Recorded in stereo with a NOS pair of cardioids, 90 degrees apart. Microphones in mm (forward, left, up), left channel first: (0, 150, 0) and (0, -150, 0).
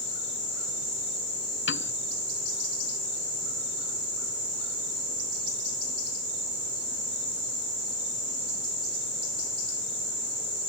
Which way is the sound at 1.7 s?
40° left.